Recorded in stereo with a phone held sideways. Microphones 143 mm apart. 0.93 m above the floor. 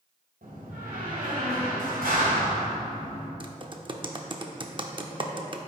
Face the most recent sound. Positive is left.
turn(degrees=-35)  # may be behind; listen again after turning